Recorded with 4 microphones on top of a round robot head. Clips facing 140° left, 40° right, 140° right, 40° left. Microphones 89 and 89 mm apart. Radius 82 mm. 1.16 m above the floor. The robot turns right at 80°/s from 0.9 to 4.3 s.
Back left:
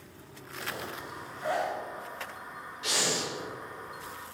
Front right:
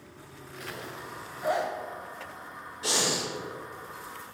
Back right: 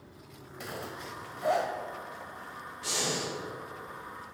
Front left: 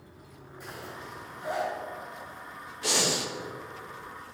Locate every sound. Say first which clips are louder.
0.6 s a zipper: back left 2 dB, back right 2 dB; 165° right, 1.4 m; by 1.7 s 100° right, 1.4 m
2.8 s breathing: front right 2 dB, front left 4 dB; 10° left, 1.5 m; by 3.3 s 50° left, 1.5 m